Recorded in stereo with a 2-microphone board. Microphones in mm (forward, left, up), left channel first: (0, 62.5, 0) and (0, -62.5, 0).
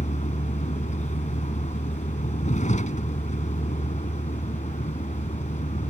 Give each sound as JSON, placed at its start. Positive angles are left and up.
{"t": 0.0, "sound": "a vehicle", "side_deg": 75}